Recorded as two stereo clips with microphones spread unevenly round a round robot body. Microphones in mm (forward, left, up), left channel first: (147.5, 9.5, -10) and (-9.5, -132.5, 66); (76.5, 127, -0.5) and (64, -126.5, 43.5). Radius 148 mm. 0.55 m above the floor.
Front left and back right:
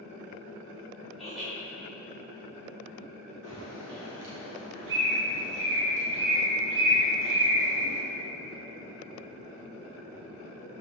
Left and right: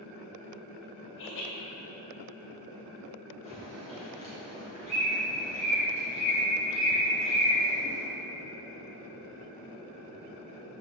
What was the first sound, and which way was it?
Laughter, 125° left.